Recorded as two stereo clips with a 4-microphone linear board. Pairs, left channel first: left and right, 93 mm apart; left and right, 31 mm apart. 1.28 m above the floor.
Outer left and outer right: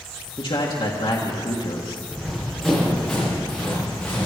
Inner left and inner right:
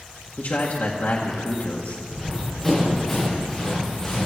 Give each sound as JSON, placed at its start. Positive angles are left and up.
{"t": 0.4, "sound": "a man speaking", "side_deg": 65, "distance_m": 1.7}
{"t": 2.1, "sound": "running footsteps", "side_deg": -10, "distance_m": 5.5}